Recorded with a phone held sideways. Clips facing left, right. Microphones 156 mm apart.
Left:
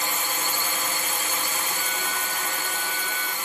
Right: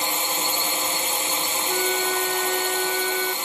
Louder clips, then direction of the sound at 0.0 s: Right 3 dB; 25° right (ahead or behind).